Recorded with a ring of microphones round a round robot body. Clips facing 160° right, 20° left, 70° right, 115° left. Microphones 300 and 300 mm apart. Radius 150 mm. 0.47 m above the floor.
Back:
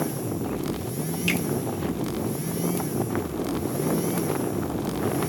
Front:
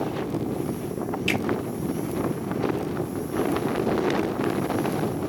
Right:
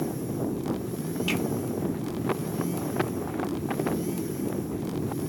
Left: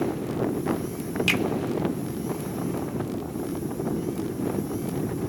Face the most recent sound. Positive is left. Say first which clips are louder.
# even, right 1 dB
turn(degrees=140)